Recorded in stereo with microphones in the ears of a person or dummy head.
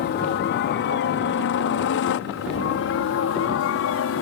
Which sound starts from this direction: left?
A helicopter, at 0.0 s.